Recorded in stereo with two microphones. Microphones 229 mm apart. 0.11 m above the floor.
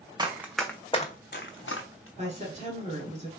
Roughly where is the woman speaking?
Right.